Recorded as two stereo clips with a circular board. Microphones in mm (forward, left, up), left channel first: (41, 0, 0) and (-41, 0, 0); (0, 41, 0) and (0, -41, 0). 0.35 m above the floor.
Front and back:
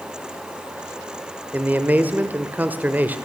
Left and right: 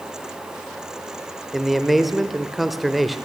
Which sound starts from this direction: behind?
A man speaking, at 1.5 s.